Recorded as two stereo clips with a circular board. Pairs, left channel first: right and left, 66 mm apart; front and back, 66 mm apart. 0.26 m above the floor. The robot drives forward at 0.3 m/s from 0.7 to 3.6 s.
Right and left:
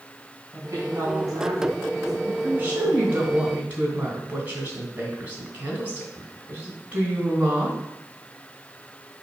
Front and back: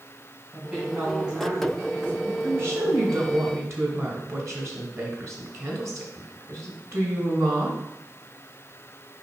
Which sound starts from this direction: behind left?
A woman speaking, at 2.4 s.